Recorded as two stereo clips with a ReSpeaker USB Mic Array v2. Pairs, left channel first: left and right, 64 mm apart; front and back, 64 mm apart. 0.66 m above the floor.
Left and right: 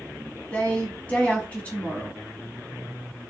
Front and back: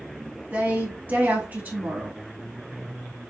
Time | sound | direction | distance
0.5 | a woman speaking | 140° left | 1.0 m